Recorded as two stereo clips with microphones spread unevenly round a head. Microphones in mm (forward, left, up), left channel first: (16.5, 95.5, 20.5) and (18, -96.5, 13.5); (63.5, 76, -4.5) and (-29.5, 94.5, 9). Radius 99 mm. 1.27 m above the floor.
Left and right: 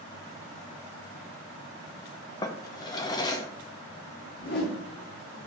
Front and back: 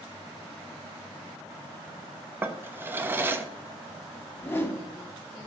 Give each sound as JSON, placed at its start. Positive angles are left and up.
{"t": 2.4, "sound": "a drawer", "azimuth_deg": 145, "distance_m": 0.6}
{"t": 4.4, "sound": "a whoosh", "azimuth_deg": 60, "distance_m": 1.7}